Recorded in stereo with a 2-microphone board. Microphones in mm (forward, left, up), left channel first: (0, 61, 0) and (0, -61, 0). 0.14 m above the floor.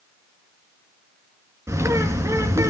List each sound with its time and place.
1.7 s a bird: 20° right (ahead or behind), 1.7 m